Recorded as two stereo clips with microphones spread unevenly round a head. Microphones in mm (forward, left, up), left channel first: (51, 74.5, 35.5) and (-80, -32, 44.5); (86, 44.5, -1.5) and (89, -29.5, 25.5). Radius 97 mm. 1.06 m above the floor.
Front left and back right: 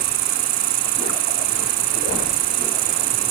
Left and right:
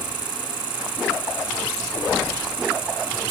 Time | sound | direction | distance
0.0 | an insect | 125° right | ?